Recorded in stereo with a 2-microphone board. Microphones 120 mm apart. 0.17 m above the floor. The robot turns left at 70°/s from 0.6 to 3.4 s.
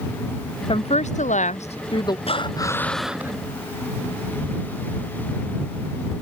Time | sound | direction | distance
0.7 | a woman speaking | 135° left | ?
2.3 | breathing | 55° left | ?